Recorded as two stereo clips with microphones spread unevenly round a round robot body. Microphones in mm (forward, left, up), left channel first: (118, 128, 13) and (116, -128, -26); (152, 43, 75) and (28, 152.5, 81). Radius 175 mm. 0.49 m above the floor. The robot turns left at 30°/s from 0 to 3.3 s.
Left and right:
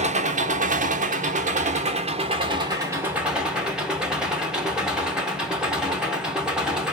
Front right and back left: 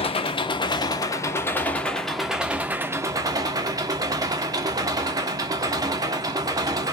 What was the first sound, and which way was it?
An engine running, 65° right.